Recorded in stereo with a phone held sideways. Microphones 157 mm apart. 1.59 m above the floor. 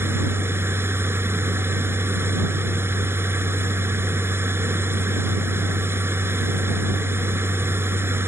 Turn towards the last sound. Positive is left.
turn(degrees=-15)  # may be behind; listen again after turning